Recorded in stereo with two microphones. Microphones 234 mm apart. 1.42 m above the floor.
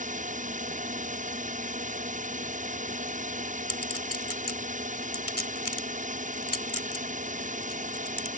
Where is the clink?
80° left.